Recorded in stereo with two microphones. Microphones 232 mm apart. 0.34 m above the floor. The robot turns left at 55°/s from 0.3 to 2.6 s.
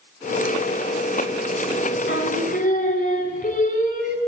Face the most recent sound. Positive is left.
turn(degrees=40)  # may be behind; listen again after turning